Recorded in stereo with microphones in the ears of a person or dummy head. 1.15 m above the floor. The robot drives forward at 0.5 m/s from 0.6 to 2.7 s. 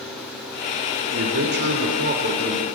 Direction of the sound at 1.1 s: 55° right (ahead or behind).